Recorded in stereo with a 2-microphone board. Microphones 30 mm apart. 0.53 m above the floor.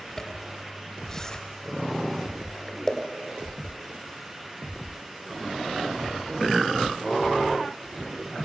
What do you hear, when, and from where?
0.2 s a zipper: 20° left (ahead or behind), 2.5 m